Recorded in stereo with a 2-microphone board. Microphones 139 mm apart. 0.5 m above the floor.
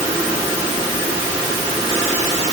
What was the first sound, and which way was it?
Only background noise.